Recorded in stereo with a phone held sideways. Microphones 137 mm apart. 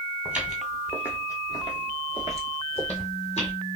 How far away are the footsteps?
About 1.0 m.